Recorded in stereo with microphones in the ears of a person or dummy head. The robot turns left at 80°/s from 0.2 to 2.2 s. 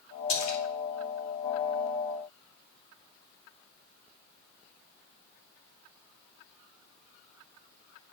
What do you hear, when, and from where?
0.3 s a splash: 80° left, 2.5 m